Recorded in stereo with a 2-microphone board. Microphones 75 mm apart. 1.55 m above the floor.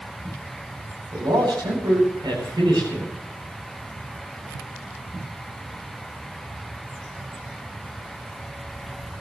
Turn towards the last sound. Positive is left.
turn(degrees=-85)